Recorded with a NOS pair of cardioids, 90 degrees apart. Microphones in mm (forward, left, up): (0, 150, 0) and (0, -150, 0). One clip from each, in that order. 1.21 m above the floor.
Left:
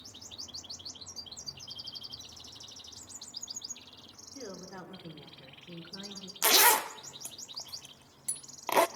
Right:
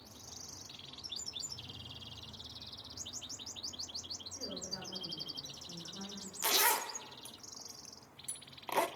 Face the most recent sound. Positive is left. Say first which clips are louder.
# left 7 dB
turn(degrees=35)